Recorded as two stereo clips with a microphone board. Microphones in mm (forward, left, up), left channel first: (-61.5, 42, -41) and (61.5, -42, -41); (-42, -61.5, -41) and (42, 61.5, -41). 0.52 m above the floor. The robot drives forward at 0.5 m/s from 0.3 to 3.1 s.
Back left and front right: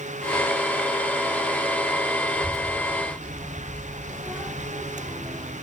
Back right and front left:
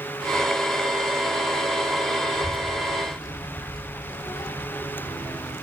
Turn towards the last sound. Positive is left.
turn(degrees=-105)